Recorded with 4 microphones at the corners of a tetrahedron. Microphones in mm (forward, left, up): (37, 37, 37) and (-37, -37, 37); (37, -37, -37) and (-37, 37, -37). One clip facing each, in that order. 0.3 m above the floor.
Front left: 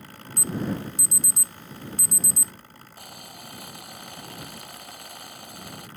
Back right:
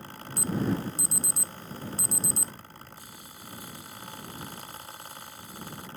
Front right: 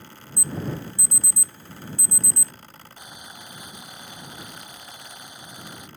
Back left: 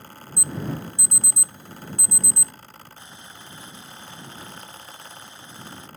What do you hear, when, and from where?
0.4 s an alarm: 165° right
3.0 s boiling: 30° left